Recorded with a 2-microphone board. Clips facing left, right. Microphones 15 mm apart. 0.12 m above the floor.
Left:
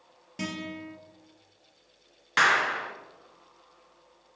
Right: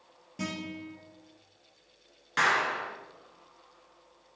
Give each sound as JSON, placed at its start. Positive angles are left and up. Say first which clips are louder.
{"t": 0.4, "sound": "a guitar", "louder": "left 1 dB", "side_deg": 25, "distance_m": 2.5}
{"t": 2.4, "sound": "a clap", "louder": "left 3 dB", "side_deg": 30, "distance_m": 0.9}